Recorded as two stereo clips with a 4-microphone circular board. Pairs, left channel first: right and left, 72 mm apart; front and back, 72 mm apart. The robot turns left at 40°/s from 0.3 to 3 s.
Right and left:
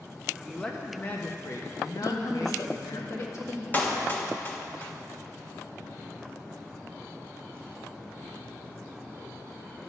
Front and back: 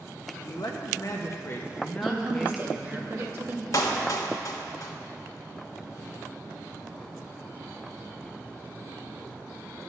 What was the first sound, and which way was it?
A man speaking, 5° right.